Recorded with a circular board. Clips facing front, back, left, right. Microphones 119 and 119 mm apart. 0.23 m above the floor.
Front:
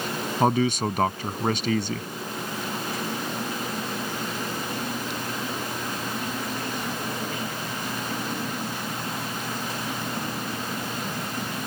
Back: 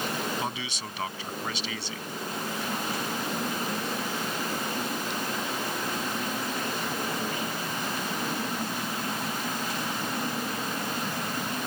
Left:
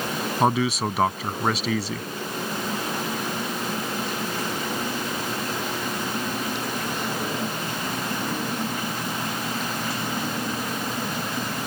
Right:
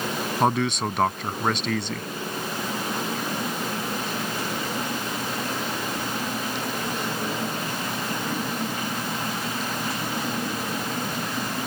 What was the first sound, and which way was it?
A man speaking, 5° left.